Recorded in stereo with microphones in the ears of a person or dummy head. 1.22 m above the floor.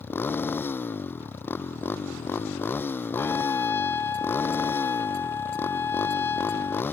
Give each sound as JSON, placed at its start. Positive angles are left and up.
{"t": 0.0, "sound": "a motorcycle", "side_deg": 10}
{"t": 3.2, "sound": "a trumpet", "side_deg": 15}